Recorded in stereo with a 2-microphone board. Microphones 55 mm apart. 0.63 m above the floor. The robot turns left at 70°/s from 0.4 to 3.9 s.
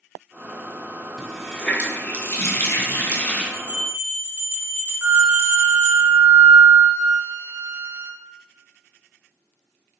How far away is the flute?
About 0.5 m.